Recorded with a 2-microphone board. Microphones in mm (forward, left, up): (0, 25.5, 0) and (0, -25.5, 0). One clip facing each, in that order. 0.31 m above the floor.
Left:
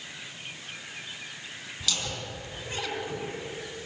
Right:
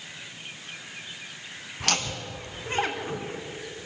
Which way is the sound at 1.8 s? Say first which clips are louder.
Right 5 dB; 55° right (ahead or behind).